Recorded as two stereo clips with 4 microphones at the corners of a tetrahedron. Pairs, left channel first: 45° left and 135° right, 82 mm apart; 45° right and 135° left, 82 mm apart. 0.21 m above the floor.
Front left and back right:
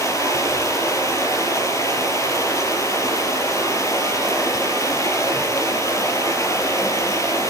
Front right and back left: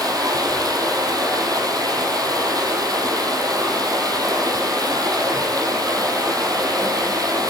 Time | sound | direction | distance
0.0 | running water | 95° left | 4 m